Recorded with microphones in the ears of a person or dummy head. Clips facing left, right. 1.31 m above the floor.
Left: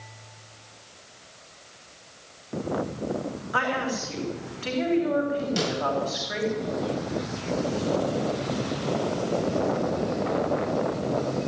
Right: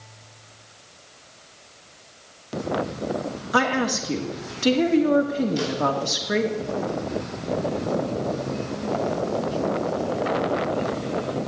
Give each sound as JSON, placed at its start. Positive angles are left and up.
{"t": 3.5, "sound": "a woman speaking", "side_deg": -50, "distance_m": 2.5}
{"t": 5.6, "sound": "a snare drum", "side_deg": 75, "distance_m": 8.0}